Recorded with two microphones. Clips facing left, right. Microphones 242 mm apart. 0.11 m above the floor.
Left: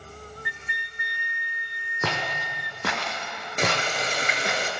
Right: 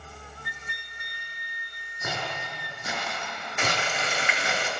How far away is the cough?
I don't hear a cough.